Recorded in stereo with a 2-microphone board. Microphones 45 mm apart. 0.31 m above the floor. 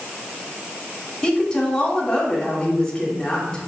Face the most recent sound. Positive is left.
turn(degrees=15)  # may be behind; listen again after turning